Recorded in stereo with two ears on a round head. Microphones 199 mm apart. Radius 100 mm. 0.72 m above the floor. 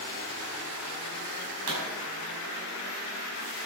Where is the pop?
80° right, 5.5 m.